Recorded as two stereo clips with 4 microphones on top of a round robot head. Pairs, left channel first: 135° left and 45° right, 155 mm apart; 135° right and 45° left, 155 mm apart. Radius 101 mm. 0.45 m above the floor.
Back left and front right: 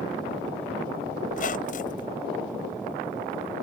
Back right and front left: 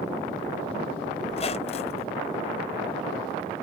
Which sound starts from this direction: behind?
A squeak, at 1.3 s.